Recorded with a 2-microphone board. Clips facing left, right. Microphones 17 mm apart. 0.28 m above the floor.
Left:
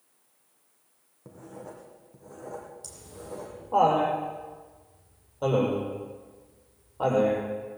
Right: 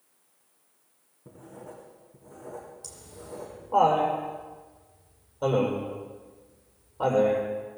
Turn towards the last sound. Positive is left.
turn(degrees=5)  # may be behind; listen again after turning